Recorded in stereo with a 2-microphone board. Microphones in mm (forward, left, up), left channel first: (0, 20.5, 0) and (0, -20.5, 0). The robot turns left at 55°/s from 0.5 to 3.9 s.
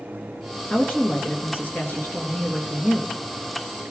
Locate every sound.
0.7 s a woman speaking: 130° left, 2.0 m; by 3.2 s 5° right, 2.0 m